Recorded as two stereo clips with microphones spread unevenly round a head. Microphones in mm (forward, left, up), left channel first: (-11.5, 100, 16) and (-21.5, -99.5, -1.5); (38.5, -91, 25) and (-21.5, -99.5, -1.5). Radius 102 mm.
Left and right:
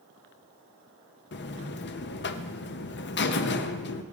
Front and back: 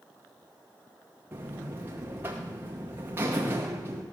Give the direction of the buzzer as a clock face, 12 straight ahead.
8 o'clock.